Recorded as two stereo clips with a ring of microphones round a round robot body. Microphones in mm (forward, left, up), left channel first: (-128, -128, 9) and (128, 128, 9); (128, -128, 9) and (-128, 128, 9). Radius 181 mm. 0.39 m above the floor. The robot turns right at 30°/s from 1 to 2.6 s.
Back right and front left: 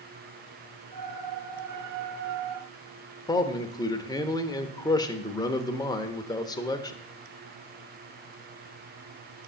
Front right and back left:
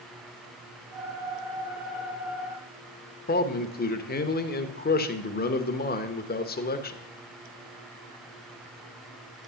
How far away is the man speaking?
About 1.0 m.